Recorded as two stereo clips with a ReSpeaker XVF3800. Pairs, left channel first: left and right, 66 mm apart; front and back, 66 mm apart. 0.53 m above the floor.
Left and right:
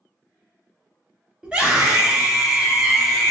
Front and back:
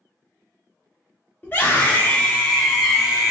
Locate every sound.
1.4 s a scream: 25° right, 1.5 m; by 3.3 s 150° right, 1.2 m